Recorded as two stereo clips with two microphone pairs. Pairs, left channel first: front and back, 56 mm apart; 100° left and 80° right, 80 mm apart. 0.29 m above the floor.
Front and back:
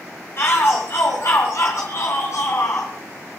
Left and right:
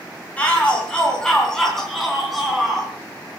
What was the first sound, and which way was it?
A shout, 30° left.